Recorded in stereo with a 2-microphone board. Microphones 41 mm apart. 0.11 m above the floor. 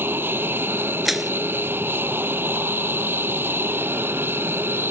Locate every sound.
0.0 s an aircraft: 65° right (ahead or behind)
1.1 s crushing: centre (ahead or behind)